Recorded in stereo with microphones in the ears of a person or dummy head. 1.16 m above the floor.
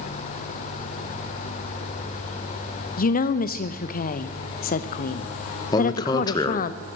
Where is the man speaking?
20° left (ahead or behind), 1.0 m.